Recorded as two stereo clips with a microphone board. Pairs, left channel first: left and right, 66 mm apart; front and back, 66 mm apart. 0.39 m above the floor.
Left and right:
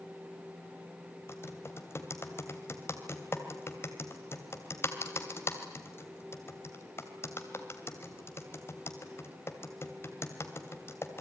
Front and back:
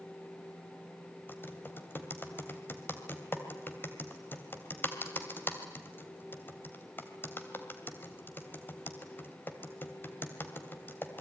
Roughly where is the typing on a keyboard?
Ahead left.